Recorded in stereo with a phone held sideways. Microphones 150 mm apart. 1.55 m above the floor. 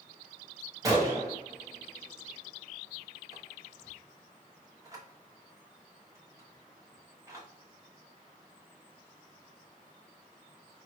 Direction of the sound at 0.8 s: 20° right (ahead or behind).